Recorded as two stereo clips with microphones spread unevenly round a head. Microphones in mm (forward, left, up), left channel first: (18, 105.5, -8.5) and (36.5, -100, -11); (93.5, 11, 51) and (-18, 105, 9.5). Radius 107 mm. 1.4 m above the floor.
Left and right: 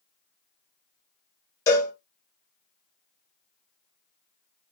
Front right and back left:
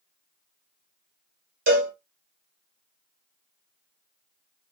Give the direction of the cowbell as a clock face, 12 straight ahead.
7 o'clock.